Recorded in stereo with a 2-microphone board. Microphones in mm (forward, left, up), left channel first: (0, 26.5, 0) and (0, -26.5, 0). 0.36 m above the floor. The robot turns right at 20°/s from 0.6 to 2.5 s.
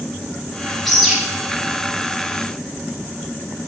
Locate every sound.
0.8 s a bird: centre (ahead or behind), 3 m; by 1.2 s 5° right (ahead or behind), 3 m